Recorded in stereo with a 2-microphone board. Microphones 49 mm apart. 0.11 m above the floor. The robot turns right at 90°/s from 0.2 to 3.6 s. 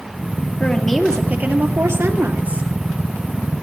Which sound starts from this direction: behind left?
A woman speaking, at 0.6 s.